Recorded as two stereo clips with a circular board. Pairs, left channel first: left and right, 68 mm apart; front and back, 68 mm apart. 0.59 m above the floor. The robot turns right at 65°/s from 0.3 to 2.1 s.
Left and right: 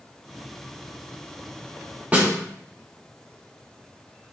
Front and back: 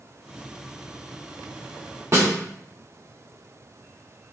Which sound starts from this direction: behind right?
A snare drum, at 2.1 s.